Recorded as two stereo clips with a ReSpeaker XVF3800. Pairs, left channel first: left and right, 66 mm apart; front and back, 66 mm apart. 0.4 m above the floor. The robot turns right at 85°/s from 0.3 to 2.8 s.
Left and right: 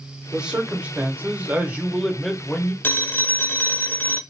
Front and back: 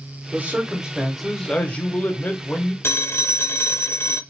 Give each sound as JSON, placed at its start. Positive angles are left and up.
{"t": 0.3, "sound": "a man speaking", "azimuth_deg": -160, "distance_m": 0.8}
{"t": 2.8, "sound": "a phone ringing", "azimuth_deg": 35, "distance_m": 0.5}